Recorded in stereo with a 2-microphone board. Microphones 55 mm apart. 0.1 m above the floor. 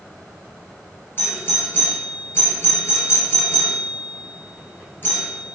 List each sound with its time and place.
1.2 s a doorbell: 40° left (ahead or behind), 1.8 m